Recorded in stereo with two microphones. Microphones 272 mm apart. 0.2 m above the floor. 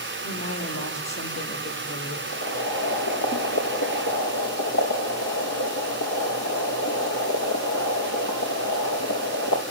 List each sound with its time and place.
0.2 s a woman speaking: 70° left (ahead or behind), 6 m; by 2.2 s 80° left, 6.5 m
2.3 s boiling: 80° left, 4 m